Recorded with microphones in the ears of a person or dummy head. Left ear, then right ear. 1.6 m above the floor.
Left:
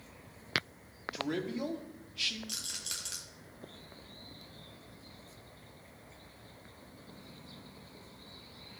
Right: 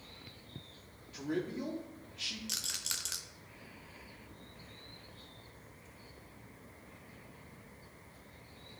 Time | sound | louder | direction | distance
1.1 | a man speaking | left 1 dB | 25° left (ahead or behind) | 1.0 m
2.5 | a rattle | right 2 dB | 20° right (ahead or behind) | 0.6 m